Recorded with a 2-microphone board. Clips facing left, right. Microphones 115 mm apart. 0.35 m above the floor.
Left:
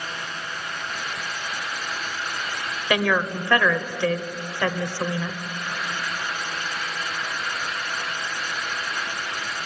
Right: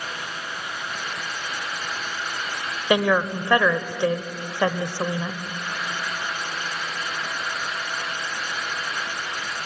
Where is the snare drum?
I don't hear a snare drum.